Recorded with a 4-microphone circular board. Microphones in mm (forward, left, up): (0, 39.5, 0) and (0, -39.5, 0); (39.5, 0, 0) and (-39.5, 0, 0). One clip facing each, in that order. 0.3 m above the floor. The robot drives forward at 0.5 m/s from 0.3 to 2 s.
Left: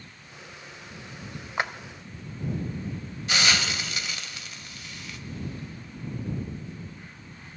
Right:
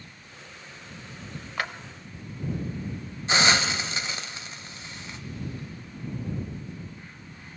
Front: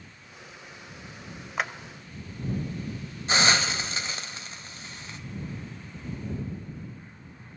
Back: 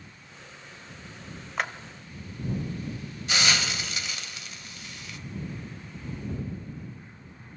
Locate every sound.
1.6 s a clap: 80° left, 0.8 m; by 1.7 s 95° left, 0.8 m
3.3 s a hiss: 40° right, 1.0 m